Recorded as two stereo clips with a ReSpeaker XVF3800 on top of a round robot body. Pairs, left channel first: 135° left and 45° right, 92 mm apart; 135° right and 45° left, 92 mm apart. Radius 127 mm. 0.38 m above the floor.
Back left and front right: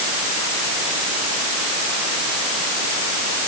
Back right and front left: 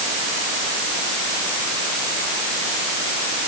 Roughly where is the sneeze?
No sneeze in this recording.